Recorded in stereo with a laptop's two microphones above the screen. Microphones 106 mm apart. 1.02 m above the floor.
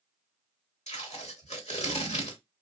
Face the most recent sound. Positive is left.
turn(degrees=80)